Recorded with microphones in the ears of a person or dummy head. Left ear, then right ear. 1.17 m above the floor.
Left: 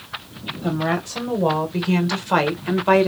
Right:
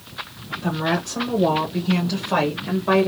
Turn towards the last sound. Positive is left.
turn(degrees=65)  # may be behind; listen again after turning